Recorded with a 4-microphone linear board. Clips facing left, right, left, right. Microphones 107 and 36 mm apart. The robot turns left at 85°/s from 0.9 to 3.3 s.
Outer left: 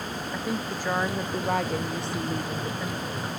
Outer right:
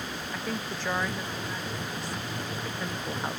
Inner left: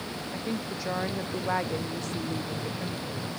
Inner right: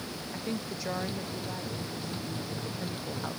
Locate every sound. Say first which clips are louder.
0.3 s a woman speaking: outer left 4 dB, inner left 2 dB; 170° left; by 3.4 s 35° right